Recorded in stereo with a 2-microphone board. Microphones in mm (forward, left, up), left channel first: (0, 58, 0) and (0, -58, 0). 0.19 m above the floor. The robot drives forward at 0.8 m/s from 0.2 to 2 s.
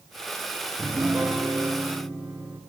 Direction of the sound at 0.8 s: 10° right (ahead or behind).